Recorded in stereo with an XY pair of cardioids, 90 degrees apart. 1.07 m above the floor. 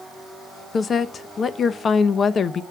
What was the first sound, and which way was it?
A woman speaking, 55° left.